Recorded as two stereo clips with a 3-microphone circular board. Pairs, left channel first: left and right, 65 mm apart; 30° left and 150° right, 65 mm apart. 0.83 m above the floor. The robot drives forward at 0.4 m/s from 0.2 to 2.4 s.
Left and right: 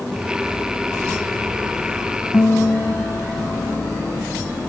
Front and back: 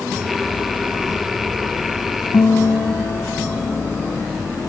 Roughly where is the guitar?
Ahead left.